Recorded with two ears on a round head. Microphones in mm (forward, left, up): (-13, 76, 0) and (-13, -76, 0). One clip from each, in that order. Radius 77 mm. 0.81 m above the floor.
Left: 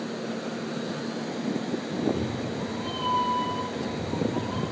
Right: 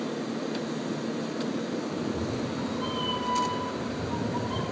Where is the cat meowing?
60° right (ahead or behind), 4 m; by 4.6 s 75° right (ahead or behind), 2.5 m.